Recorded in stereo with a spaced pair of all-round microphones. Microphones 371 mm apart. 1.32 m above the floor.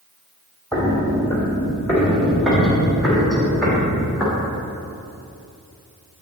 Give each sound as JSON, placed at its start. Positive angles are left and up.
{"t": 0.7, "sound": "footsteps", "side_deg": 10, "distance_m": 1.4}